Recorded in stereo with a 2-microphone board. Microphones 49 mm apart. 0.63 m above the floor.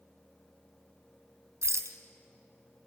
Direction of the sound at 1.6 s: 70° right (ahead or behind).